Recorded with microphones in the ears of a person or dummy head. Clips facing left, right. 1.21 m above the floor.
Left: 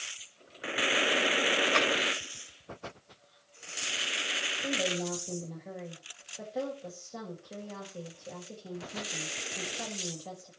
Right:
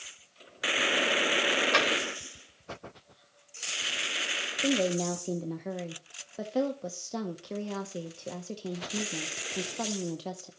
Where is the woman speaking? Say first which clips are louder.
Right 6 dB; 75° right (ahead or behind), 0.9 m.